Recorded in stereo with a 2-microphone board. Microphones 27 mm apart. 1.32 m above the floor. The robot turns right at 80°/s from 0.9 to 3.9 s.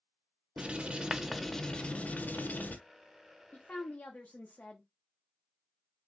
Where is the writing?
45° right, 0.6 m; by 2.8 s 105° left, 0.6 m.